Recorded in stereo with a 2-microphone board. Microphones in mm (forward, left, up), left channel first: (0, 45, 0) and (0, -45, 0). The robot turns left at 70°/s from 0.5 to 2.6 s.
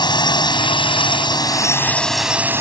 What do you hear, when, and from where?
0.0 s a drone: 120° left; by 2.6 s 30° right